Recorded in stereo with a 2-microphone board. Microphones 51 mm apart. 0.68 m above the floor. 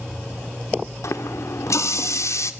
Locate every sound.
1.0 s a running tap: 75° left (ahead or behind), 1.2 m